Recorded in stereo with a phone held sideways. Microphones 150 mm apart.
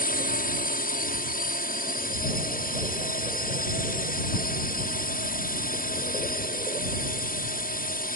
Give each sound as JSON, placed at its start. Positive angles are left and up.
{"t": 0.0, "sound": "a drone", "side_deg": 75}